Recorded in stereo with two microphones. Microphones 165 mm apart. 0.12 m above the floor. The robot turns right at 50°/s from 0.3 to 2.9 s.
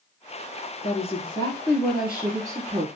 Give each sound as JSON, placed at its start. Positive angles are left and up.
{"t": 0.8, "sound": "a woman speaking", "azimuth_deg": 125, "distance_m": 2.0}